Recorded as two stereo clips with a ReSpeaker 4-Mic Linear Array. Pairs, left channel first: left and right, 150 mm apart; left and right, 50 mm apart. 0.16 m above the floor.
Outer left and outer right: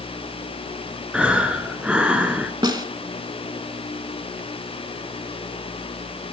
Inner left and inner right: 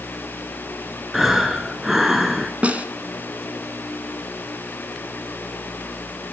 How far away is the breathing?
About 0.9 m.